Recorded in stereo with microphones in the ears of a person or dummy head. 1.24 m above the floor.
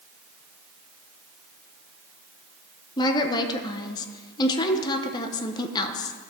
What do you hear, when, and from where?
3.0 s a woman speaking: 30° left (ahead or behind), 0.9 m